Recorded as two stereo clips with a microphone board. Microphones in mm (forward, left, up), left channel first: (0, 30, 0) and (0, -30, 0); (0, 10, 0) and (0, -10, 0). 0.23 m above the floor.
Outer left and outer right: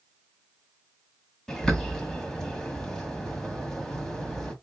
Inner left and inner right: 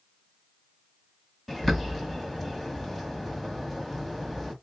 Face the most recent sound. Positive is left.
turn(degrees=10)  # may be behind; listen again after turning